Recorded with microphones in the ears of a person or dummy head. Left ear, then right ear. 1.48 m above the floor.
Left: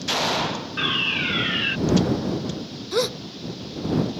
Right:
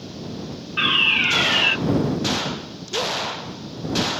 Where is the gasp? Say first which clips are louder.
Even; 60° left (ahead or behind).